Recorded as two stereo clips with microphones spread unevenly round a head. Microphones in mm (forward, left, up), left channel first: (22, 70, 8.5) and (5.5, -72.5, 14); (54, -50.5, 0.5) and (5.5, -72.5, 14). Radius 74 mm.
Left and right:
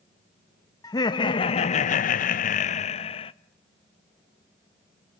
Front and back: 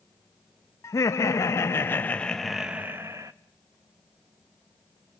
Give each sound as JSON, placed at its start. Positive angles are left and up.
{"t": 0.8, "sound": "laughter", "azimuth_deg": 20, "distance_m": 0.8}